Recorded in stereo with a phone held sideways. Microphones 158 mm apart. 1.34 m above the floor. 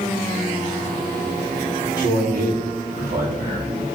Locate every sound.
2.0 s a man speaking: 75° right (ahead or behind), 4 m; by 3.7 s 55° right (ahead or behind), 4 m